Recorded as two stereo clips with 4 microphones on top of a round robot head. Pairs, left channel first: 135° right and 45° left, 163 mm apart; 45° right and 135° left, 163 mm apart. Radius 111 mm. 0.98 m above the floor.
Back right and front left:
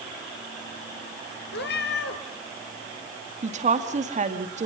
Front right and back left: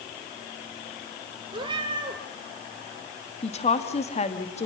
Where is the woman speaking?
Straight ahead, 2.5 m.